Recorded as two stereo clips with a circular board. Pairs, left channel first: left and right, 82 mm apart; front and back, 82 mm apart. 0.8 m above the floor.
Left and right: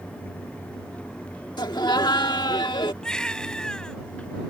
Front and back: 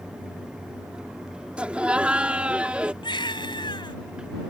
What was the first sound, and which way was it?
Laughter, 105° left.